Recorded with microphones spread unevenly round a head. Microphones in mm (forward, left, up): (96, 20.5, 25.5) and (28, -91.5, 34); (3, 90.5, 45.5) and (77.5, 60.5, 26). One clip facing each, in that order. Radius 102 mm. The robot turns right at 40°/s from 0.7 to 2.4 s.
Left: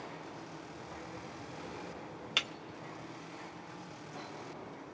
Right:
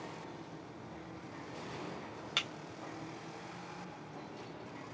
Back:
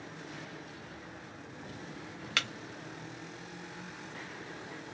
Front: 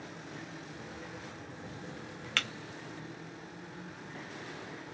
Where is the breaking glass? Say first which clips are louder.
Left 2 dB, back 1 dB; 140° left, 0.6 m; by 2.5 s 145° left, 0.6 m.